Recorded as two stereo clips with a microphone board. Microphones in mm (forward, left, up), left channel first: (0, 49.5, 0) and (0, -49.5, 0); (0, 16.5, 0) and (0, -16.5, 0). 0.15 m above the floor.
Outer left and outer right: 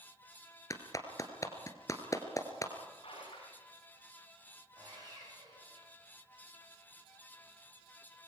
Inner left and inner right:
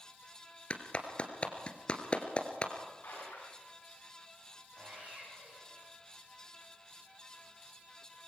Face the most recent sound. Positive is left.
turn(degrees=-40)  # may be behind; listen again after turning